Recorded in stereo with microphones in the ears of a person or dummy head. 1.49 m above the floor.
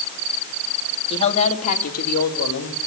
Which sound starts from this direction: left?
A woman speaking, at 1.1 s.